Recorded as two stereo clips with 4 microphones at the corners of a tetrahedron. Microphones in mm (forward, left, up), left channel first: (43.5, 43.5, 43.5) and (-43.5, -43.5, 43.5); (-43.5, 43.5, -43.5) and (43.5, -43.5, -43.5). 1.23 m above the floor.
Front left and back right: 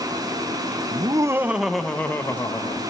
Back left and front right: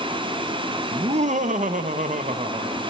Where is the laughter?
85° right, 0.8 m; by 2.8 s 15° right, 1.4 m.